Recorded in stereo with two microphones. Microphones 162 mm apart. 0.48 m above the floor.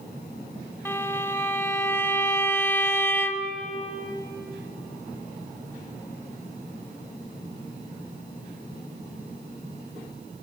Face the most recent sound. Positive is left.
turn(degrees=15)  # may be behind; listen again after turning